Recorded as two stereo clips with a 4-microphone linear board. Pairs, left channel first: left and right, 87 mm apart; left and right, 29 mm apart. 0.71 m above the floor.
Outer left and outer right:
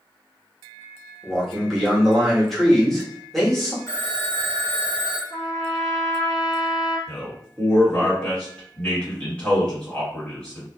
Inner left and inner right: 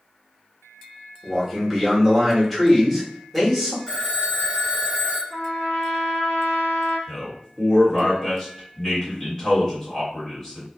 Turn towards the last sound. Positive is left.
turn(degrees=10)  # may be behind; listen again after turning